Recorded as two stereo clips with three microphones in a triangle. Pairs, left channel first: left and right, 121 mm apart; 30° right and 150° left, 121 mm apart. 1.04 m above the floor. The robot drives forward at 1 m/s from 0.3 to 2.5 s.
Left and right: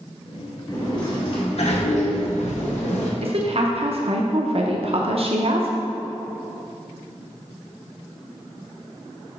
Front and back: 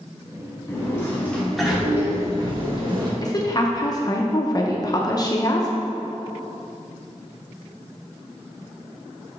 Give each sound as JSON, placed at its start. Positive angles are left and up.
{"t": 0.7, "sound": "a sliding door", "azimuth_deg": 35, "distance_m": 1.9}
{"t": 3.2, "sound": "a woman speaking", "azimuth_deg": -80, "distance_m": 0.6}